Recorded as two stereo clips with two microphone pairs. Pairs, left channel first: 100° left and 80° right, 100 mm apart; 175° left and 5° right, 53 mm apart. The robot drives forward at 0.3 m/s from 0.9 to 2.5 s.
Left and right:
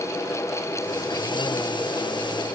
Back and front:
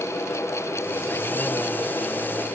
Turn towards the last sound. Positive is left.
No sound to turn to.